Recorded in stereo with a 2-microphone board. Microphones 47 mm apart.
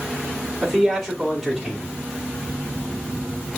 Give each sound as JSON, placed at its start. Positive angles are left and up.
{"t": 0.6, "sound": "a man speaking", "side_deg": 5, "distance_m": 2.5}